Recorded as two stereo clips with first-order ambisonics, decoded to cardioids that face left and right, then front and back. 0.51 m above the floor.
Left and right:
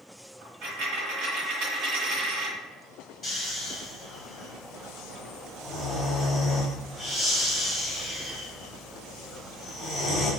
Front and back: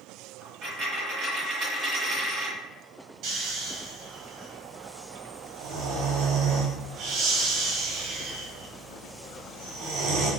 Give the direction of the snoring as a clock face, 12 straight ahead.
7 o'clock.